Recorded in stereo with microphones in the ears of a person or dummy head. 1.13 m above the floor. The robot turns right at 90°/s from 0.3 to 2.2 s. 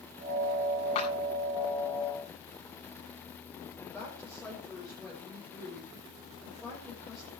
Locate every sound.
0.9 s a clap: 35° left (ahead or behind), 8.5 m; by 1.1 s 20° left (ahead or behind), 8.5 m
3.8 s a woman speaking: 5° left (ahead or behind), 5.5 m